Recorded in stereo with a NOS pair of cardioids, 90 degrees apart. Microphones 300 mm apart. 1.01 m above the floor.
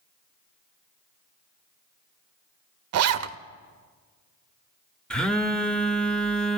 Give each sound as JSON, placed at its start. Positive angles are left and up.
{"t": 2.9, "sound": "a zipper", "azimuth_deg": -60, "distance_m": 0.7}
{"t": 5.1, "sound": "a phone buzzing", "azimuth_deg": 5, "distance_m": 1.2}